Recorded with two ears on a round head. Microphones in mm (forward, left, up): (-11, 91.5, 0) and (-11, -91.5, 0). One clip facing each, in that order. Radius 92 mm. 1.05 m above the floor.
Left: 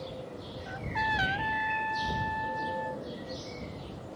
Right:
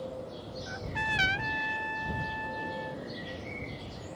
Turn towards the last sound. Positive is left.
turn(degrees=-35)  # may be behind; listen again after turning